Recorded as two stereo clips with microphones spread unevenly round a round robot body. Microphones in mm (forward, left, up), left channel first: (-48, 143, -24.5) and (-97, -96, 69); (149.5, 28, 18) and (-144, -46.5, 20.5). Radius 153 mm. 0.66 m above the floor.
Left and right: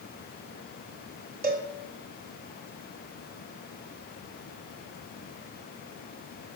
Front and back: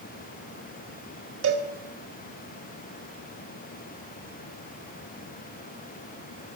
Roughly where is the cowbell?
Behind.